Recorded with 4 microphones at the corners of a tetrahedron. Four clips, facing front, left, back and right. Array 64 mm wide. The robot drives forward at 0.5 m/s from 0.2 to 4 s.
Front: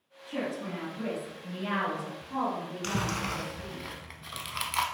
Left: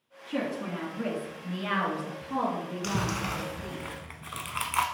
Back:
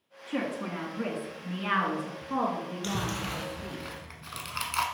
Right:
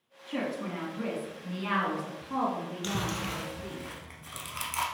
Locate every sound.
0.3 s a woman speaking: 175° right, 1.4 m; by 3.8 s straight behind, 2.5 m
2.8 s chewing: 35° left, 0.8 m; by 4.8 s 100° left, 0.7 m